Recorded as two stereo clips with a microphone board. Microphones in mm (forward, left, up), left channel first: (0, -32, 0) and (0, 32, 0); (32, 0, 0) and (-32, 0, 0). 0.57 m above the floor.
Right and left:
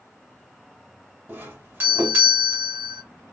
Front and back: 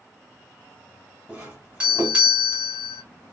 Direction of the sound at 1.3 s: 120° left.